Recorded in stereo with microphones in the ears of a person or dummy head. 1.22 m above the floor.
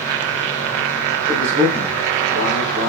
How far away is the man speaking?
About 2.5 m.